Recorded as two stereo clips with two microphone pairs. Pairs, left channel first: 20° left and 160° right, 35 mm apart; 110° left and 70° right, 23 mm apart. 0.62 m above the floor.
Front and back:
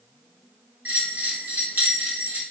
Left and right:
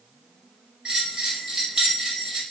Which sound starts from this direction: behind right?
A bell, at 0.8 s.